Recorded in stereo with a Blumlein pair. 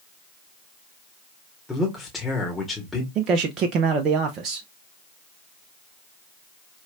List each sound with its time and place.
1.7 s a man speaking: 10° left, 1.5 m
3.1 s a man speaking: 30° right, 0.7 m